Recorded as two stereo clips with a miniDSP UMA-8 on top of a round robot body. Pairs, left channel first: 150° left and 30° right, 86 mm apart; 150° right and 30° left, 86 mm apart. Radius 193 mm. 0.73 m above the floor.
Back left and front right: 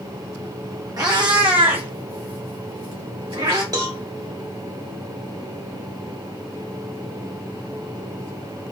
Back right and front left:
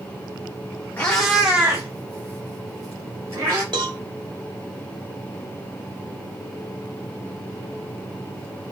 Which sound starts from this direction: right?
A cat meowing, at 1.0 s.